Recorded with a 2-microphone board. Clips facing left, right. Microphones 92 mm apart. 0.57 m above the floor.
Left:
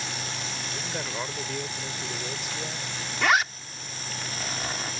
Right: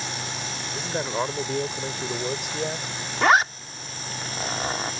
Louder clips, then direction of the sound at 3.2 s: Right 5 dB; 35° right (ahead or behind).